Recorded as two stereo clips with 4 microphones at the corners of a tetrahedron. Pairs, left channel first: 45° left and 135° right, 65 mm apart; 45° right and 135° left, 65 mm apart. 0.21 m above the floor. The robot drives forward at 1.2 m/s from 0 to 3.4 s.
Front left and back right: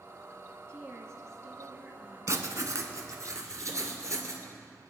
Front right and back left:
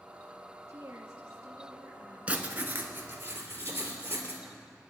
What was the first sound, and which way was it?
A woman speaking, straight behind.